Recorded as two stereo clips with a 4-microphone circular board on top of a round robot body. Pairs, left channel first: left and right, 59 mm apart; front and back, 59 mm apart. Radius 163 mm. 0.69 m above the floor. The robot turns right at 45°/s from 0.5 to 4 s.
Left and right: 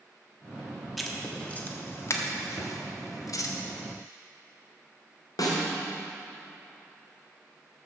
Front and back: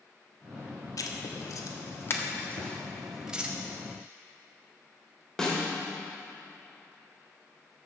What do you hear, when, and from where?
1.0 s writing: straight ahead, 1.5 m; by 3.5 s 115° left, 1.5 m
2.6 s a thud: 30° left, 1.7 m; by 2.7 s 35° left, 1.7 m
5.4 s a snare drum: 80° left, 2 m